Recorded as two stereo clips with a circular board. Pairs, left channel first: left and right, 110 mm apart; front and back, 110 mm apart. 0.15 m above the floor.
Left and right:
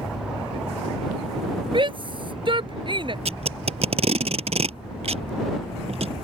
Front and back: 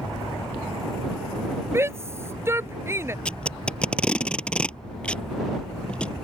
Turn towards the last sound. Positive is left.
turn(degrees=-80)